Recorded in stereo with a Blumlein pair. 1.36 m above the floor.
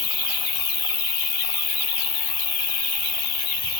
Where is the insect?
30° left, 6.5 m.